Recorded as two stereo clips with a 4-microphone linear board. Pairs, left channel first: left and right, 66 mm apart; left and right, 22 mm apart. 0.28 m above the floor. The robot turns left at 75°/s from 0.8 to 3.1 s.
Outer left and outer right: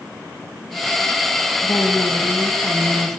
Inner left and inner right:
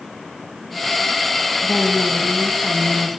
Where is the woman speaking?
70° left, 3 m; by 3.2 s 40° right, 3 m.